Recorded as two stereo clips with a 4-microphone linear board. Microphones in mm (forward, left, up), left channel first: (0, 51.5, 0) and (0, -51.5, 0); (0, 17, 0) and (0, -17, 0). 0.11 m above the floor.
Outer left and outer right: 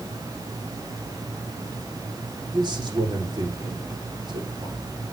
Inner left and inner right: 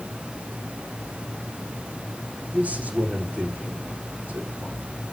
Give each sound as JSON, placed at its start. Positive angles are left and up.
{"t": 2.5, "sound": "a man speaking", "side_deg": -45, "distance_m": 7.0}